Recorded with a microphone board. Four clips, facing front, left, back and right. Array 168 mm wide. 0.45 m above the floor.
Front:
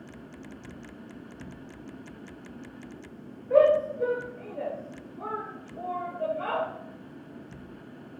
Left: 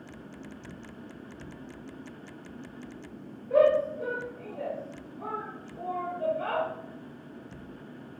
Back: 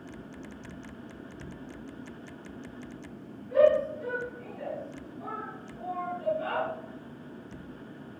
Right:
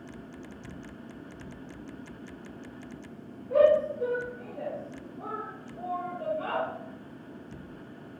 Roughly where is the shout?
Ahead.